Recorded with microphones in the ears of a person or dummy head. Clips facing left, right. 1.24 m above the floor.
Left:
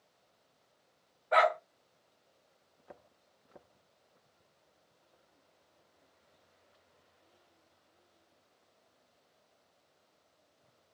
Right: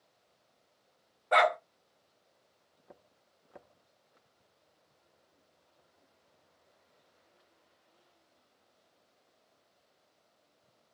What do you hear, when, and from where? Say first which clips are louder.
1.3 s a dog barking: right 1 dB; 45° right (ahead or behind), 0.9 m